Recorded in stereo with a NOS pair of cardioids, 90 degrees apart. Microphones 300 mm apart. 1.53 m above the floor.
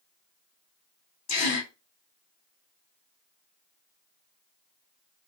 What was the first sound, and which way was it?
A gasp, 60° left.